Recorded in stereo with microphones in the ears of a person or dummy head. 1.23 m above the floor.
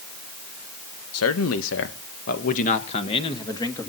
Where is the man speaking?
75° left (ahead or behind), 1.6 m; by 3.9 s 20° left (ahead or behind), 2 m.